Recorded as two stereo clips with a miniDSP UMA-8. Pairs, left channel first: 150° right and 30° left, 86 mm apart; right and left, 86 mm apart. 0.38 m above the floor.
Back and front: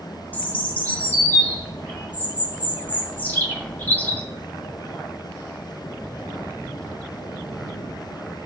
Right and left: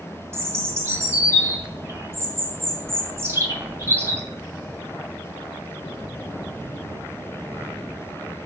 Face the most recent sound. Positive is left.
turn(degrees=145)